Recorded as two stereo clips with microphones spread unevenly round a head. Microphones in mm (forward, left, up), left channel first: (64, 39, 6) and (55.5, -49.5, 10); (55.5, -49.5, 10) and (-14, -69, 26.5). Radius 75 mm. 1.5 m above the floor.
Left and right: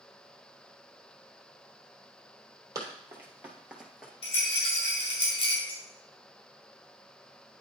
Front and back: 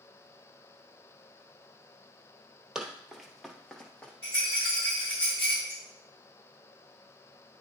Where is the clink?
100° left, 4 m.